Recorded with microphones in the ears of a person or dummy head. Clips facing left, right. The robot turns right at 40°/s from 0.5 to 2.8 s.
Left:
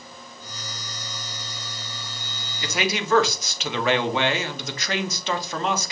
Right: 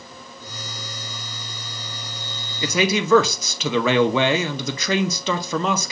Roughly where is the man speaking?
Right.